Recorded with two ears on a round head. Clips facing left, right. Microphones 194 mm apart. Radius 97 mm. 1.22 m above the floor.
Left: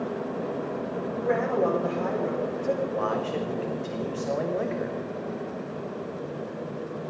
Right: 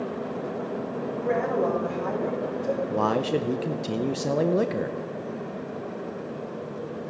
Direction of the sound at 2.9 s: 55° right (ahead or behind).